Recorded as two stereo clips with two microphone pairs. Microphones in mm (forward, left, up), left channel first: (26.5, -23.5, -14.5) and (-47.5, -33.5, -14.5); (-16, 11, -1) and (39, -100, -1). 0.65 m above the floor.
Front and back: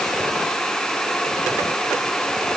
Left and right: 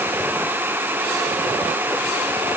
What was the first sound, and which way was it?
Only background noise.